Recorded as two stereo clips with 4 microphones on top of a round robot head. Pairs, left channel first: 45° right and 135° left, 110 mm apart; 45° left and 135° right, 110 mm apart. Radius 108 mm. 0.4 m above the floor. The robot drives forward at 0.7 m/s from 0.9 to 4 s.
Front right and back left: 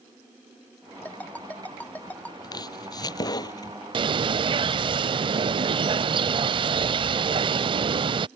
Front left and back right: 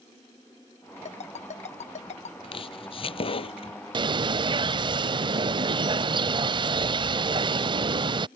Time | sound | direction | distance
1.1 | a ringtone | 30° left | ?
2.4 | chopping | 5° left | ?
3.9 | a bird | straight behind | ?